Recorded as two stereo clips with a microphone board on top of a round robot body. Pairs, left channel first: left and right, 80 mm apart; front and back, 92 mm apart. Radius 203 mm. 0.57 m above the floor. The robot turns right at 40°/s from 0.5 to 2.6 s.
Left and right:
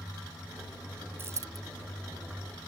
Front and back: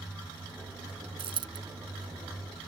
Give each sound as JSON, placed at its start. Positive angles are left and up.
{"t": 1.2, "sound": "a dropped coin", "azimuth_deg": -155}